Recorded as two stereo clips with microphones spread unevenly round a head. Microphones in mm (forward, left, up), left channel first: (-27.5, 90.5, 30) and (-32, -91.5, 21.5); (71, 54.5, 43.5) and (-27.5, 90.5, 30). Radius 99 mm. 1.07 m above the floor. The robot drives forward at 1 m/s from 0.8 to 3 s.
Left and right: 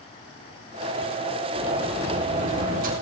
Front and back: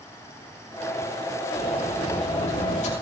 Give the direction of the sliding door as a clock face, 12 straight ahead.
1 o'clock.